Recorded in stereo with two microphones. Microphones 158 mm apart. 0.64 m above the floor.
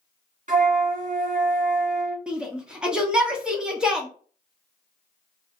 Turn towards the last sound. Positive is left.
turn(degrees=-5)  # may be behind; listen again after turning